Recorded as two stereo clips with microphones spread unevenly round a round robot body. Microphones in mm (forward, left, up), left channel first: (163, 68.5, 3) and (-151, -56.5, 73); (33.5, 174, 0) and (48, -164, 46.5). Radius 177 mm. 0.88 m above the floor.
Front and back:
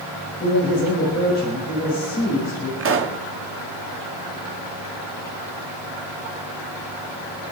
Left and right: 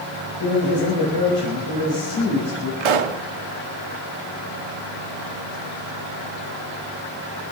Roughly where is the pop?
Right.